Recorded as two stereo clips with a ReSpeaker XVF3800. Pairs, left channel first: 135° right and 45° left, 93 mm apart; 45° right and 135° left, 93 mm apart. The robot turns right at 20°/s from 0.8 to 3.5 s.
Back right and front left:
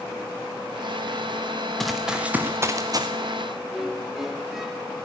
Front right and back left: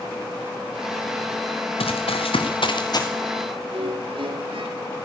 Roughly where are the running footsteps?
Ahead right.